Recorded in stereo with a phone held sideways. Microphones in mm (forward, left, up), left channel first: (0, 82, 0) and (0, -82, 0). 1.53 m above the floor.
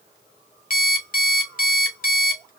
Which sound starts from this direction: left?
An alarm clock, at 0.7 s.